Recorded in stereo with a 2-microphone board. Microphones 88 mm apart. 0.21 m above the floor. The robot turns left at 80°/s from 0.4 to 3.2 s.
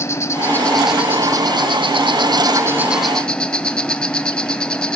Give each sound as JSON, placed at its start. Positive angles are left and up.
{"t": 0.0, "sound": "an insect", "azimuth_deg": 35, "distance_m": 0.8}